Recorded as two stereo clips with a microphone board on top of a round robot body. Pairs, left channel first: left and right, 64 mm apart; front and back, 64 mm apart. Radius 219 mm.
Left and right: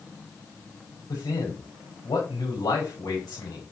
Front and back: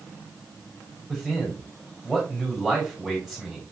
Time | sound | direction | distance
1.1 | a man speaking | 95° left | 4.5 m